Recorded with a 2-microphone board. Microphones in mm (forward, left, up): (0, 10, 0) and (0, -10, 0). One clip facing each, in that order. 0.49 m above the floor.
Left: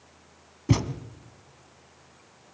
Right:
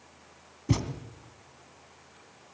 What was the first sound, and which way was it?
A thud, 30° left (ahead or behind).